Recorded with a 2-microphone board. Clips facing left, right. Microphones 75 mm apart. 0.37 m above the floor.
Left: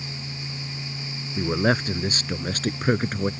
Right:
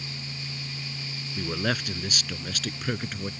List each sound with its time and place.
1.4 s a man speaking: 25° left (ahead or behind); by 3.3 s 40° left (ahead or behind)